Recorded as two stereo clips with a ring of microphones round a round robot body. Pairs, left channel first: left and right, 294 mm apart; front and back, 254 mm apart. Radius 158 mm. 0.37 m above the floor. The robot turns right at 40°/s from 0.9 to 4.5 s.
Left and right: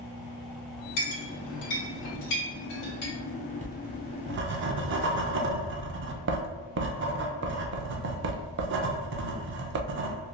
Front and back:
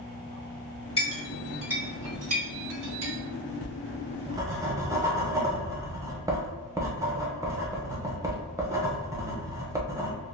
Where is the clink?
65° left, 1.9 m; by 3.1 s 150° left, 1.9 m.